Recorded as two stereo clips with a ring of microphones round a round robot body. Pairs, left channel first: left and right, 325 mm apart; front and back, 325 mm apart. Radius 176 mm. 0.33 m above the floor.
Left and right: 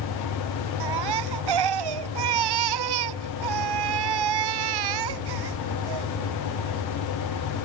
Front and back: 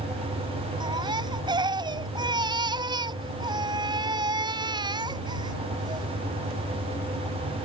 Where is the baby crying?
100° right.